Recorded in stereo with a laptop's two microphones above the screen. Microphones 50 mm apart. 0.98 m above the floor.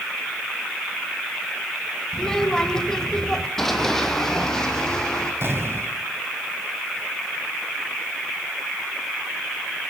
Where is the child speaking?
10° left (ahead or behind), 3 m.